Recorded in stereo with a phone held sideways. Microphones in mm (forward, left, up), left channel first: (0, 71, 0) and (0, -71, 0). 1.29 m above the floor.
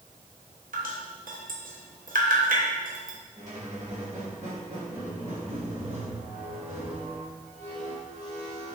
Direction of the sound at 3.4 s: 55° right (ahead or behind).